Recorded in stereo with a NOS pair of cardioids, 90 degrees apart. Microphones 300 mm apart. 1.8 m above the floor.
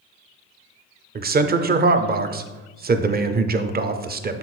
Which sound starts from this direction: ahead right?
A man speaking, at 1.1 s.